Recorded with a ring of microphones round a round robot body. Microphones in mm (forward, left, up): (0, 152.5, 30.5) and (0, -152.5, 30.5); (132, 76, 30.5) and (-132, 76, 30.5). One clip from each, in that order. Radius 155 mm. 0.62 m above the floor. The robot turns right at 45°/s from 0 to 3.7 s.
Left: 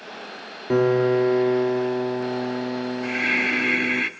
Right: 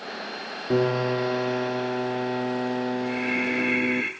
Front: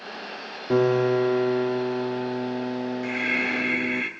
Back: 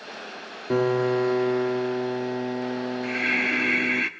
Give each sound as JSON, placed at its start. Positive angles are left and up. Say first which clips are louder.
{"t": 0.7, "sound": "a piano", "louder": "left 5 dB, front 2 dB", "azimuth_deg": 120, "distance_m": 0.8}
{"t": 3.0, "sound": "breathing", "louder": "left 8 dB, back 1 dB", "azimuth_deg": 115, "distance_m": 1.6}